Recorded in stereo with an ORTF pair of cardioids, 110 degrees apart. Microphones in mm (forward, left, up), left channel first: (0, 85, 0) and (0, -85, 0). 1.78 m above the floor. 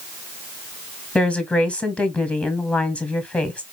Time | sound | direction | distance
1.1 | a woman speaking | 5° left | 1.0 m